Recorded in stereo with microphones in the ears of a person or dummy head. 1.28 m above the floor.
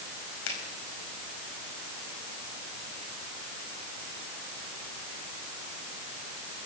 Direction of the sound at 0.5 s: 80° left.